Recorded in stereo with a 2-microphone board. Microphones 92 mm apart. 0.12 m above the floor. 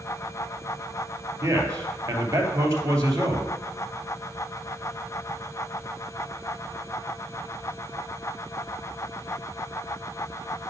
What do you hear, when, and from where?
1.4 s a man speaking: 35° right (ahead or behind), 2.5 m